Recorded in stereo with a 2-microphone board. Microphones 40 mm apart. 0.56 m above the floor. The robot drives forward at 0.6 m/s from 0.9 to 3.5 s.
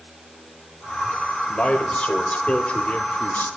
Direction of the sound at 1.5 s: 25° left (ahead or behind).